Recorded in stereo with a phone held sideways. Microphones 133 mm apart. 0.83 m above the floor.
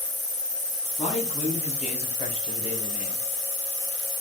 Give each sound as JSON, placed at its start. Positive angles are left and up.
{"t": 1.0, "sound": "a man speaking", "side_deg": 75, "distance_m": 3.0}